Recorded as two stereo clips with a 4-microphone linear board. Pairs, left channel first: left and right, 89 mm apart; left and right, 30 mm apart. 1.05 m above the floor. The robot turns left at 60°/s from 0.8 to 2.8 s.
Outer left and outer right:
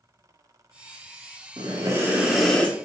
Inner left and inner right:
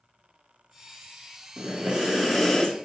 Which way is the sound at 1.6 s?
130° right.